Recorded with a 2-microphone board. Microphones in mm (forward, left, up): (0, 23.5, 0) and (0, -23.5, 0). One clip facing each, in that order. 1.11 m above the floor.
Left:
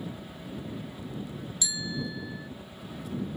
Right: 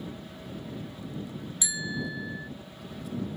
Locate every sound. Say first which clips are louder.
0.0 s a helicopter: left 1 dB; 15° left (ahead or behind)
1.6 s a bicycle bell: right 1 dB; 25° right (ahead or behind)